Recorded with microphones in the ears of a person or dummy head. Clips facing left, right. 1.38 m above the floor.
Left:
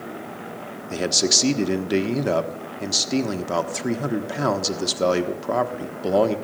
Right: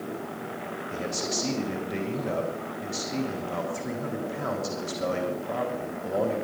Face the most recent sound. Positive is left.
turn(degrees=85)